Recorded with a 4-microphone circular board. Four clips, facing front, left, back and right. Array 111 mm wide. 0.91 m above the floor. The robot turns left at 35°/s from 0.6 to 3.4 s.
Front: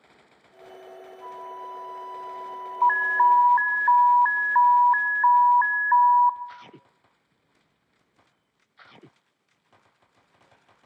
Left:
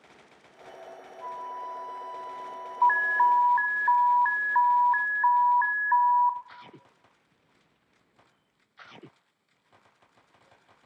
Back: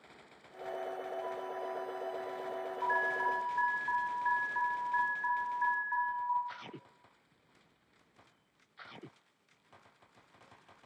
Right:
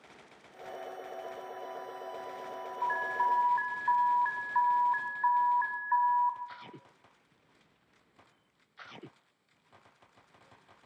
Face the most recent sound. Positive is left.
turn(degrees=20)